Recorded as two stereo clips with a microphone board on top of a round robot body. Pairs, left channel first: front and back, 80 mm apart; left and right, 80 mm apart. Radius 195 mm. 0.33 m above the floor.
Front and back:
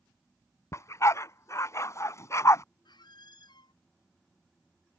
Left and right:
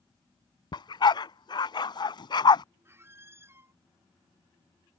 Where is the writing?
No writing in this recording.